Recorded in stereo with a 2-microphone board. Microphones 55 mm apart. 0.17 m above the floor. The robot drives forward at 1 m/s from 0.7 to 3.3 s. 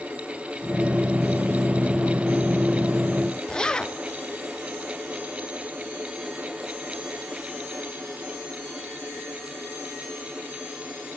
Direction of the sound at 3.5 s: 15° left (ahead or behind).